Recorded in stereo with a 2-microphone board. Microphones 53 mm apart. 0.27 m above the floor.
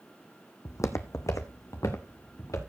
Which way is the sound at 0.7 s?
70° left (ahead or behind).